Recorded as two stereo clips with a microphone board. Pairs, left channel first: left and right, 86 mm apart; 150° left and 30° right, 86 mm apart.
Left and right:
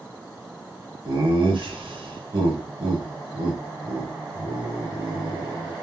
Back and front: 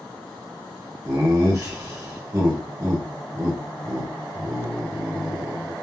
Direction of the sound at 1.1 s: 85° right.